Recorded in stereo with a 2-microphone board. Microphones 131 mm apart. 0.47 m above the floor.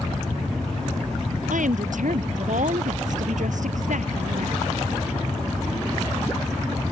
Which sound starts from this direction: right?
A woman speaking, at 1.5 s.